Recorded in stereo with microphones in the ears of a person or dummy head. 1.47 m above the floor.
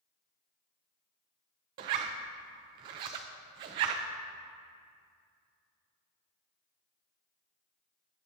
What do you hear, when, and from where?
1.8 s a zipper: 25° right (ahead or behind), 0.5 m